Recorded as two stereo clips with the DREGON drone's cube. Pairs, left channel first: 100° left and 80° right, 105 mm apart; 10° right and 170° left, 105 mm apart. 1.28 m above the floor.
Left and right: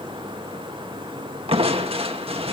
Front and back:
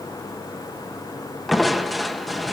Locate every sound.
1.5 s crushing: 100° right, 1.3 m